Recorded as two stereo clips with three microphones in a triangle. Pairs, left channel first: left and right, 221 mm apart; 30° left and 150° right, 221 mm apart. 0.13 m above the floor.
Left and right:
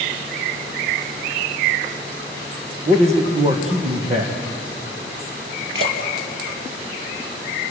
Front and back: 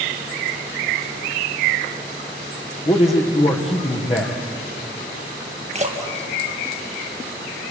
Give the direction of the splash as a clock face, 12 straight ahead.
3 o'clock.